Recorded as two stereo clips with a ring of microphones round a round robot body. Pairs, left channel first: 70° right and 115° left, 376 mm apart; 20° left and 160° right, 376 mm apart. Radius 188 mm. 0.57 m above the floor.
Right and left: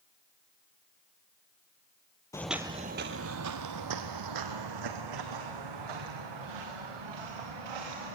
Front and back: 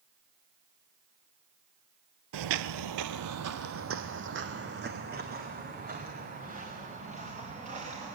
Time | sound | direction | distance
2.3 | footsteps | 145° right | 0.7 m